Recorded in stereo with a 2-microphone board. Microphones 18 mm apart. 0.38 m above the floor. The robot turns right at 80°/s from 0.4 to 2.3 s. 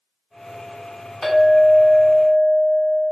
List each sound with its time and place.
1.2 s a clink: 50° left, 1.9 m; by 3.0 s 140° left, 1.9 m